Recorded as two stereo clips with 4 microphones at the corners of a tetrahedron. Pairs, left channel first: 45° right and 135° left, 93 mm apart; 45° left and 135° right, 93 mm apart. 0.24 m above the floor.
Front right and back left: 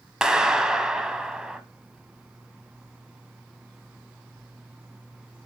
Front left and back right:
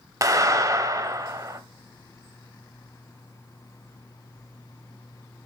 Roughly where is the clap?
Behind right.